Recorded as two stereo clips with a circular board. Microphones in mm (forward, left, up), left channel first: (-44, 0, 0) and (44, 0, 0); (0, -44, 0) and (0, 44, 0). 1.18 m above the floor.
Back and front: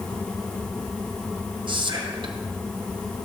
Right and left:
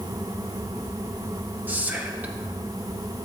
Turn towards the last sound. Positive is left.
turn(degrees=20)